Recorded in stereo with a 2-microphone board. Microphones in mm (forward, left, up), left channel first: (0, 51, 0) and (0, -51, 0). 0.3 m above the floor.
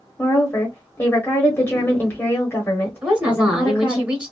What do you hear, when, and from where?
0.2 s a woman speaking: 20° left (ahead or behind), 0.9 m
3.0 s a woman speaking: 10° right (ahead or behind), 1.1 m